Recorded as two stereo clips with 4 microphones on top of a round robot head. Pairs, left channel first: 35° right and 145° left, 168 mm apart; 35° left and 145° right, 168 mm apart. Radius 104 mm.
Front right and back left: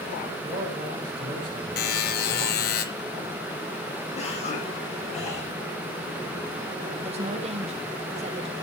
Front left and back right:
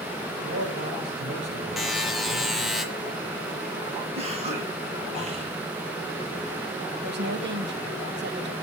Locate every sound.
0.4 s a man speaking: 155° right, 6 m
1.8 s a buzzer: 55° right, 1.3 m
4.2 s a cough: 90° right, 5.5 m
7.0 s a woman speaking: 165° right, 1.8 m